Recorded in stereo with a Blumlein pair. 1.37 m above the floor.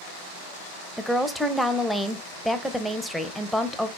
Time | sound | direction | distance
1.0 | a woman speaking | straight ahead | 0.5 m